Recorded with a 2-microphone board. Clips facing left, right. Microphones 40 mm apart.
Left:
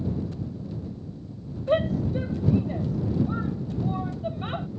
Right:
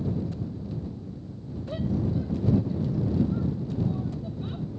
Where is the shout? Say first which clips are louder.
Left 6 dB; 55° left (ahead or behind).